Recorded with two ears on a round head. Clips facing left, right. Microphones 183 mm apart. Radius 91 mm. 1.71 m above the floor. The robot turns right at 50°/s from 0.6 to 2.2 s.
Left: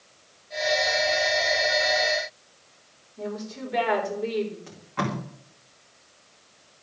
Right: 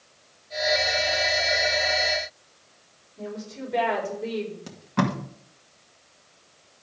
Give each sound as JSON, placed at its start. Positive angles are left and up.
{"t": 3.2, "sound": "a woman speaking", "side_deg": 5, "distance_m": 4.5}
{"t": 4.7, "sound": "tape being pulled", "side_deg": -50, "distance_m": 2.5}